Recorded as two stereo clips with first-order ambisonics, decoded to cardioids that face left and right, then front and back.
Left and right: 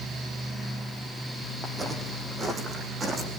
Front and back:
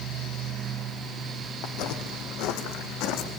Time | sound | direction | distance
1.6 | footsteps | 15° right | 3.5 m